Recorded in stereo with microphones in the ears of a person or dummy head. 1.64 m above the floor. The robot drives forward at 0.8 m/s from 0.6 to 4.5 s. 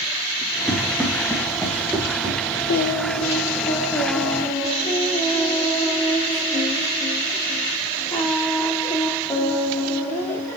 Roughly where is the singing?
Left.